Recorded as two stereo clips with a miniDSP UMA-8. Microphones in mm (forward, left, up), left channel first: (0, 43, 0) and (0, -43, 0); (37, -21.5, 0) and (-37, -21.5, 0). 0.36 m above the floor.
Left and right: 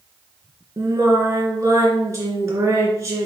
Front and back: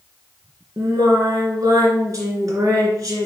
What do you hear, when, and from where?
0.8 s singing: 145° right, 2.5 m